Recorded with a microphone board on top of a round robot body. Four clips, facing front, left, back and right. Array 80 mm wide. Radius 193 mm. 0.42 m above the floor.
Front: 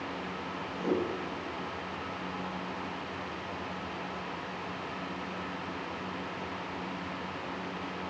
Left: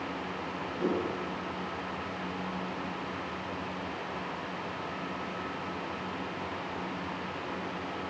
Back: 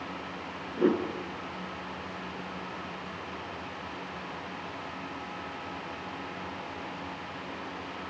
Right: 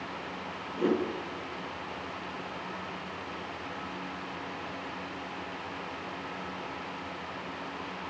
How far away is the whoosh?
About 4 m.